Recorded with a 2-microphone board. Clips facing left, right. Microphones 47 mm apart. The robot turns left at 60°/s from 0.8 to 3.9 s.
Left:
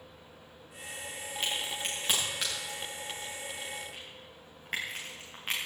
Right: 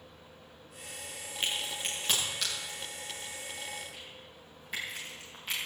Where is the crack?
30° right (ahead or behind), 9.5 m; by 5.7 s 60° left (ahead or behind), 9.5 m.